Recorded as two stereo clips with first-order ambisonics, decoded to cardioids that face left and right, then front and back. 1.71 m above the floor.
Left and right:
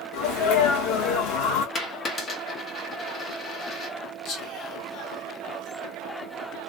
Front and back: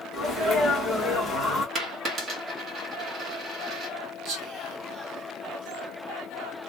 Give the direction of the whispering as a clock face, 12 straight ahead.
8 o'clock.